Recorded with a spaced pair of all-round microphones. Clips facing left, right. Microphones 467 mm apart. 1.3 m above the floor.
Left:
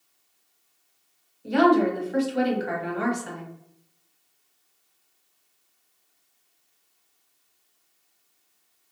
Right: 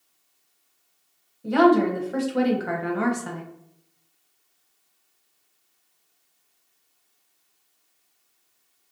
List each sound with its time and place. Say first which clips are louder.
1.4 s a woman speaking: right 2 dB; 65° right (ahead or behind), 0.8 m